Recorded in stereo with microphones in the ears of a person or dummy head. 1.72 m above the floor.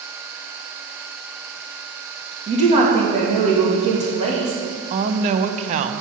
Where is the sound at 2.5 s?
35° right (ahead or behind), 2.5 m.